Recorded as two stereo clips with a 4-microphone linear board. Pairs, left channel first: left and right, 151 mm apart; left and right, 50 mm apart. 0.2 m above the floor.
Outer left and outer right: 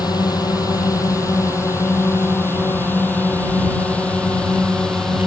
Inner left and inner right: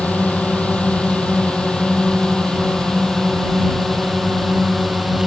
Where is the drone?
25° left (ahead or behind); by 5.3 s 5° left (ahead or behind).